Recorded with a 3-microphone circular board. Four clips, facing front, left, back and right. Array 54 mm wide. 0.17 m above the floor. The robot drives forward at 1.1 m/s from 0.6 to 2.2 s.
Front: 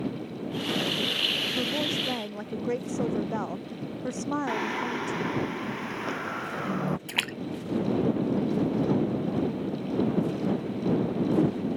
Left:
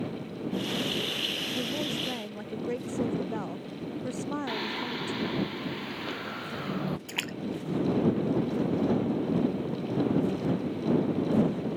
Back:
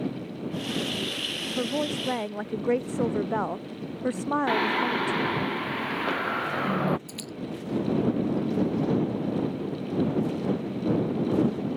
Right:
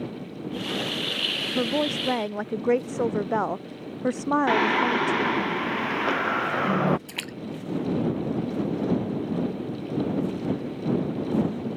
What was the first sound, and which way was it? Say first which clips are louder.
A woman speaking: right 10 dB, back 1 dB; 100° right.